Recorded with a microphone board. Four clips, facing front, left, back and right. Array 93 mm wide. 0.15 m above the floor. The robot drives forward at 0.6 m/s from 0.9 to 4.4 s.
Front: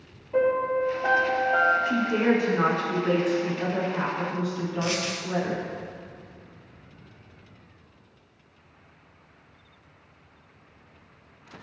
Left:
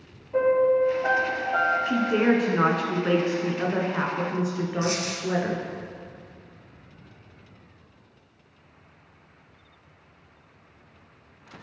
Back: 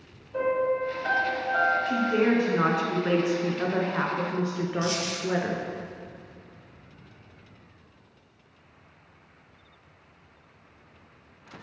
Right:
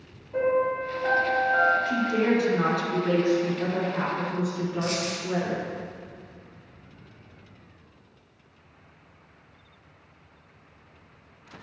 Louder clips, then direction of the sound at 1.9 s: Left 2 dB, even; 65° left.